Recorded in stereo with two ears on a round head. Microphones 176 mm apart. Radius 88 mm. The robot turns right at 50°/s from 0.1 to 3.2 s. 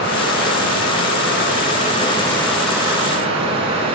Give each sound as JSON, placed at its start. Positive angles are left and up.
{"t": 0.0, "sound": "running water", "azimuth_deg": 55, "distance_m": 3.5}